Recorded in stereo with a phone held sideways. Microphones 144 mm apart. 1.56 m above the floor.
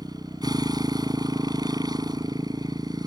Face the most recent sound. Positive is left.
turn(degrees=-30)  # may be behind; listen again after turning